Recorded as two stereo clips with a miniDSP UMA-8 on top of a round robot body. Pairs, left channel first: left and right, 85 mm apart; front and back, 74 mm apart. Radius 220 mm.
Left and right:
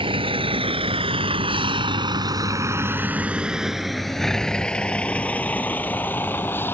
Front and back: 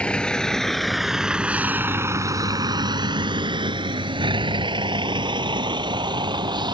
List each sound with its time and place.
0.0 s a vehicle: 75° right; by 6.8 s 155° left